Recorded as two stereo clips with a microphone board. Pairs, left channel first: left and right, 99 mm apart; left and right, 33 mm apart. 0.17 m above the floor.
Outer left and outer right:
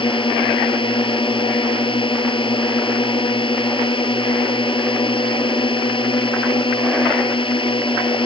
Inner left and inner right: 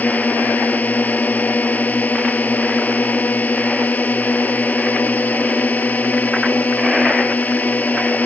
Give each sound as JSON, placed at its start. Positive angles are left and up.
{"t": 0.0, "sound": "a drone", "side_deg": 55}